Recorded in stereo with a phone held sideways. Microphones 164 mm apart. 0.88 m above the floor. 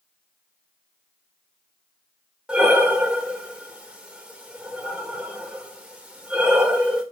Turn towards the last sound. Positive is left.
turn(degrees=-5)  # may be behind; listen again after turning